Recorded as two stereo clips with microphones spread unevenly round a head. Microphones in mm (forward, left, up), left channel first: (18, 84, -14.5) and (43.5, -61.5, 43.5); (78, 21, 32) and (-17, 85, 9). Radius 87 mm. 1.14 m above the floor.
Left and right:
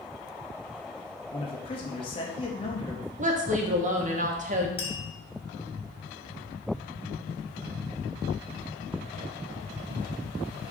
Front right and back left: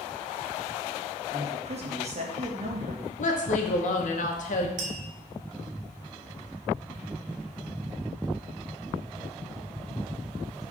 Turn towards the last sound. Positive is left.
turn(degrees=160)